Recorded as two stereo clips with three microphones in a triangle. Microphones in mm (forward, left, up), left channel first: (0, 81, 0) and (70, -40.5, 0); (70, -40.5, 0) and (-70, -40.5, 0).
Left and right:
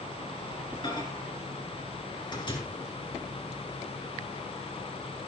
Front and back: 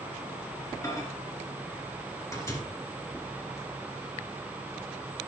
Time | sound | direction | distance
0.8 | a microwave | 65° left | 2.5 m